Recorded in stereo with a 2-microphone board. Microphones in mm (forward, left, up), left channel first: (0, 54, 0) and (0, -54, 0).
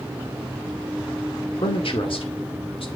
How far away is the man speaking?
About 1.9 m.